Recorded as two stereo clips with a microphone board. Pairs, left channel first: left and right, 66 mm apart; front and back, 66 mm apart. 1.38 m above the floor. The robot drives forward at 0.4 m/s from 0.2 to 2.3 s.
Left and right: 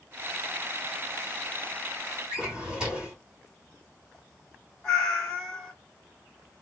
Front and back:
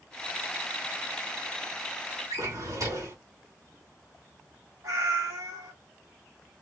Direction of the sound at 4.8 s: 175° left.